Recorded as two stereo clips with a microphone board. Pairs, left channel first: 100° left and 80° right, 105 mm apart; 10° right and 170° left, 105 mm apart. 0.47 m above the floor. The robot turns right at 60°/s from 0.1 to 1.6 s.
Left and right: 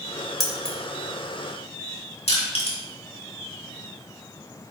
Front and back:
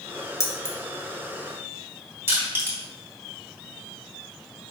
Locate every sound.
0.4 s keys jangling: 15° left, 0.8 m; by 0.8 s 35° left, 0.8 m
2.3 s crushing: 105° left, 1.4 m